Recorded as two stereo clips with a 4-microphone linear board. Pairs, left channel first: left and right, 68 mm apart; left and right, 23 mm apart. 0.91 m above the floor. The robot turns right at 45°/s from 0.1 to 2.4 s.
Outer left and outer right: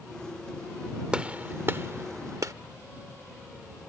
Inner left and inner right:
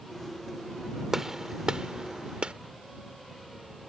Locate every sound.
1.1 s a gunshot: 15° right (ahead or behind); by 2.5 s 55° right (ahead or behind)